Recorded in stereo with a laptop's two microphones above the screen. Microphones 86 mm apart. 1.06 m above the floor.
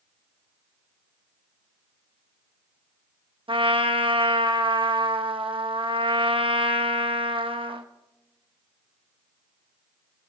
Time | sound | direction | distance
3.5 | a trumpet | 85° right | 0.9 m